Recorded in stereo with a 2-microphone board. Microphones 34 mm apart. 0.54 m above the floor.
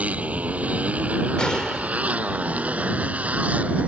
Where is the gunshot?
25° left (ahead or behind).